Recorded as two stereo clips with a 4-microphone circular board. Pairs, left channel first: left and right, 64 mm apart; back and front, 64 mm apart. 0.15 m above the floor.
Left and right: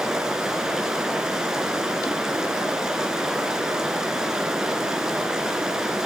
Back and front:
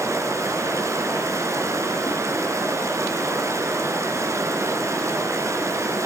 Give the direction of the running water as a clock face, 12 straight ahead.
12 o'clock.